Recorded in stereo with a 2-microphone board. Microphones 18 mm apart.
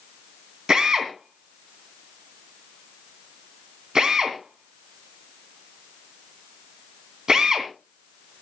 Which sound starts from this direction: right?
A drill, at 0.7 s.